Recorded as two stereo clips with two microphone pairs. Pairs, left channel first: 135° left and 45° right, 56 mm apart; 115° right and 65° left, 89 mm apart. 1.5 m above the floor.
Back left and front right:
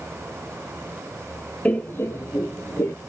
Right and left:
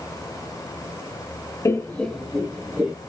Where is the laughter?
165° right, 0.6 m; by 2.9 s 135° left, 1.1 m.